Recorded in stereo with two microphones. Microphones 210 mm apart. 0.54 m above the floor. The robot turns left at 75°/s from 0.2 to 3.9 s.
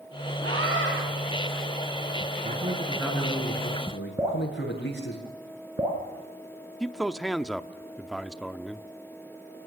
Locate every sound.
0.4 s a scream: 80° right, 6.5 m; by 0.9 s 120° right, 6.5 m
2.4 s a man speaking: 140° right, 7.5 m; by 5.2 s 110° left, 7.5 m
4.2 s dripping: 15° right (ahead or behind), 5 m
6.8 s a man speaking: centre (ahead or behind), 0.8 m